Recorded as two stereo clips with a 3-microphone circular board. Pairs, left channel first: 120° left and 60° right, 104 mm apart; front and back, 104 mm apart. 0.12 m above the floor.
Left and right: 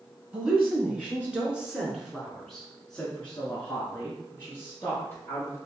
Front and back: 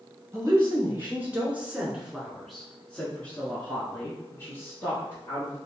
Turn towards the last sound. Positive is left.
turn(degrees=55)